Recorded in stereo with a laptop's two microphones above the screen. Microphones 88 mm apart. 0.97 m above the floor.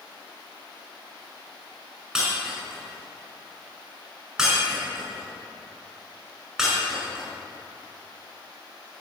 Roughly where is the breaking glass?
Centre.